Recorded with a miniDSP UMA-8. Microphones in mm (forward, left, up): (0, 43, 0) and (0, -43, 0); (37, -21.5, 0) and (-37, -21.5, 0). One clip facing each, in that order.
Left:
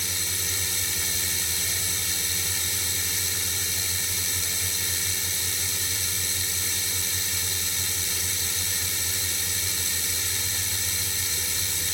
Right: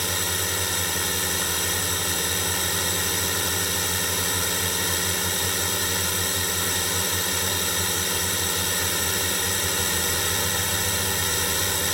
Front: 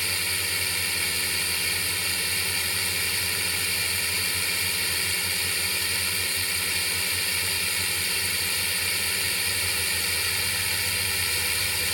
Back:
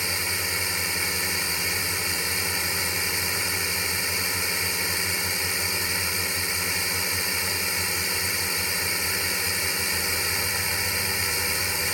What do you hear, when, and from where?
0.0 s a drone: 110° right